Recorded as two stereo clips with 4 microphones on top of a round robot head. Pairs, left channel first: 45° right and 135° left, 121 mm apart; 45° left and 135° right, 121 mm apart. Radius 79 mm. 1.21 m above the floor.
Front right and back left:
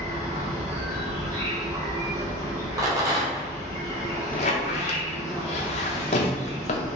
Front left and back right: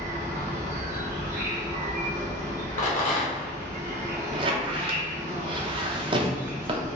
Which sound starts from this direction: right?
A squeak, at 4.3 s.